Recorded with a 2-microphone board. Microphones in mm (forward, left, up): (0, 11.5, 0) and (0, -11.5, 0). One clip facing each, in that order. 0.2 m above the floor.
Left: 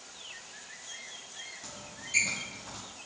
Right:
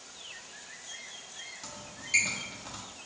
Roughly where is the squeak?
Right.